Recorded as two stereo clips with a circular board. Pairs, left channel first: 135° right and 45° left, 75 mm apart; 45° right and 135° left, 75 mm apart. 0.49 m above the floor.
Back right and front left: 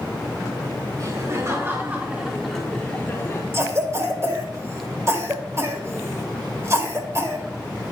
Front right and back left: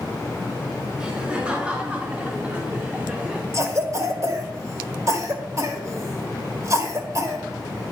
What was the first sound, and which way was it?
Laughter, 60° left.